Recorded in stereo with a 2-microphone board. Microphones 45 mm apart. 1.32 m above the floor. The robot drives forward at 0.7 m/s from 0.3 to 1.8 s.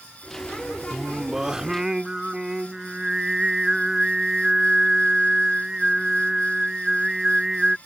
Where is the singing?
10° right (ahead or behind).